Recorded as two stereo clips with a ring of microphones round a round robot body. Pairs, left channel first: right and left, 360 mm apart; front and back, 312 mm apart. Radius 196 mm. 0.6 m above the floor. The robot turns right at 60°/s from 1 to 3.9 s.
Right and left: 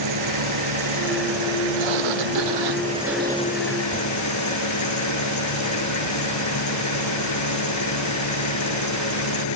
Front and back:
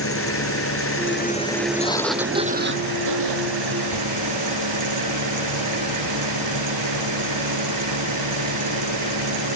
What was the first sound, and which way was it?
An engine running, 50° left.